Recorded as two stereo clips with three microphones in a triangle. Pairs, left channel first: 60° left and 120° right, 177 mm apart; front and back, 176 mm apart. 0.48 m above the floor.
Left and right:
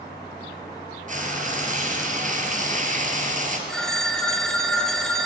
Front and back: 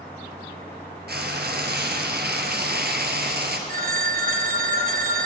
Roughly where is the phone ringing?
Behind left.